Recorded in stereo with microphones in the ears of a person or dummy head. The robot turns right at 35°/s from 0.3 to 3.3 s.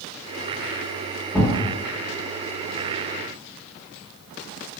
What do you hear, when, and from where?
1.3 s a thud: centre (ahead or behind), 2.0 m; by 1.6 s 5° right (ahead or behind), 2.0 m